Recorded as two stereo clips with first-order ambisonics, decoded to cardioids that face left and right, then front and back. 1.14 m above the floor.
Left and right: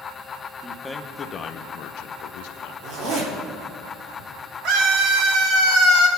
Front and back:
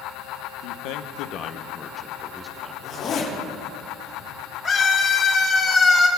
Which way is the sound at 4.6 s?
60° right.